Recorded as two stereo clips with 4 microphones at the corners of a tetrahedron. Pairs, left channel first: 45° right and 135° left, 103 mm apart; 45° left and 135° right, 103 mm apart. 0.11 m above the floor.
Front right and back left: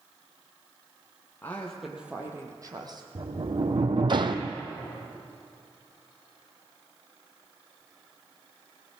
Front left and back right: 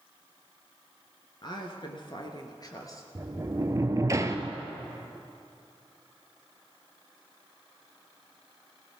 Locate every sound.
1.4 s a woman speaking: 20° left, 1.9 m; by 3.0 s 95° left, 2.5 m
3.1 s a sliding door: 170° left, 0.9 m